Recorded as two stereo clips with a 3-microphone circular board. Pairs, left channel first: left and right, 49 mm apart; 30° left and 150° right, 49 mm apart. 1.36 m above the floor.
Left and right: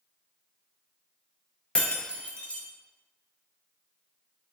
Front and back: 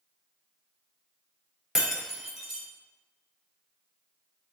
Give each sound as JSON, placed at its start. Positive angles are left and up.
{"t": 1.8, "sound": "breaking glass", "azimuth_deg": 135, "distance_m": 0.6}